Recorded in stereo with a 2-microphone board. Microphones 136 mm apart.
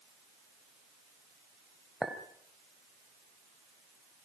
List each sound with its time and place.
2.0 s a clink: 5° right (ahead or behind), 2.5 m